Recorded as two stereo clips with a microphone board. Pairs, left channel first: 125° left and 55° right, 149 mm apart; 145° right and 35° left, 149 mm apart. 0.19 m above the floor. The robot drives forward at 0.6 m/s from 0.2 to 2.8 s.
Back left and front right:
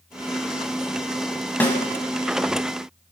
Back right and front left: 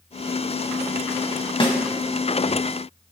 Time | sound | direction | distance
1.6 | a snare drum | 165° right | 1.6 m